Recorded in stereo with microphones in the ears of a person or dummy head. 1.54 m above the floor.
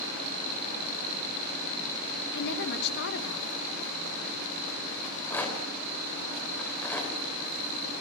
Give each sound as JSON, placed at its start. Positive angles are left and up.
{"t": 2.3, "sound": "a woman speaking", "side_deg": 60, "distance_m": 2.5}
{"t": 5.0, "sound": "a rattle", "side_deg": 10, "distance_m": 4.5}